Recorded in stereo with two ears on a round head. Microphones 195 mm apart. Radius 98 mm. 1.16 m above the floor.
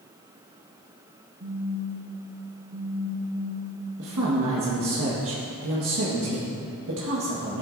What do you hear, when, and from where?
1.4 s a phone buzzing: 60° right (ahead or behind), 2 m
4.0 s a woman speaking: 70° right (ahead or behind), 1.4 m